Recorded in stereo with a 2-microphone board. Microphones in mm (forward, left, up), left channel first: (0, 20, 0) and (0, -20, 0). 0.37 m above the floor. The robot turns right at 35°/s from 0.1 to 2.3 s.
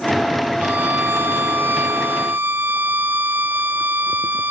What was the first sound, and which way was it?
A violin, 120° right.